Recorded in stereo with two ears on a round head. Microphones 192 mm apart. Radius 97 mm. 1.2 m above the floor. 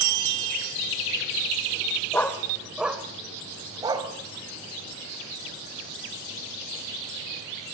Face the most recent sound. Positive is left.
turn(degrees=-20)  # may be behind; listen again after turning